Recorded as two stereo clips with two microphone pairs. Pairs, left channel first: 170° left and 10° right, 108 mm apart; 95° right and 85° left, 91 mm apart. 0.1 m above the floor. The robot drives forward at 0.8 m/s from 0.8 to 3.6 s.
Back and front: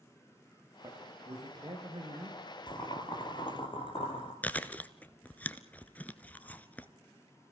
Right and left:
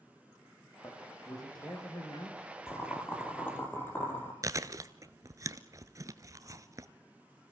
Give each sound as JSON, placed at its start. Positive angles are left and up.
{"t": 0.8, "sound": "a man speaking", "azimuth_deg": -50, "distance_m": 6.0}
{"t": 2.7, "sound": "boiling", "azimuth_deg": -155, "distance_m": 3.0}
{"t": 4.4, "sound": "chewing", "azimuth_deg": 105, "distance_m": 0.9}